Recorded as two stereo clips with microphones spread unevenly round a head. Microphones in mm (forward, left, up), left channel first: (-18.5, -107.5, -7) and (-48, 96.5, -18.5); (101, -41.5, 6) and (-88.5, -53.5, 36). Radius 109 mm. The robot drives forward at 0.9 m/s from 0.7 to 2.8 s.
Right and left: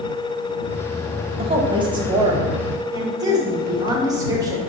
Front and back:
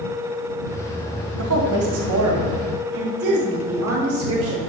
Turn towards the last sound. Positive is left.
turn(degrees=170)